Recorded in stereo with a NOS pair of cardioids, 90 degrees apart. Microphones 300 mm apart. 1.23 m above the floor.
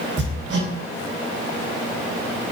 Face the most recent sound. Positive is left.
turn(degrees=-40)